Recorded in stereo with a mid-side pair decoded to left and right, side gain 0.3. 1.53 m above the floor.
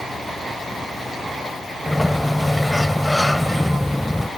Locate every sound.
1.9 s a sliding door: 10° left